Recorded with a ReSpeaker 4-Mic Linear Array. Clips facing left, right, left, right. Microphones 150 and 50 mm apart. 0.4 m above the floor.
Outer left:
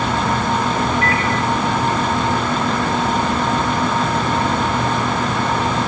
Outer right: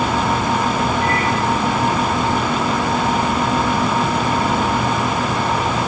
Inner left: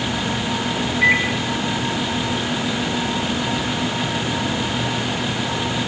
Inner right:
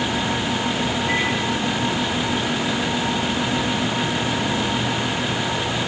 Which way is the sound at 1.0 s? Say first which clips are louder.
Outer right 1 dB, inner left 8 dB; 85° left.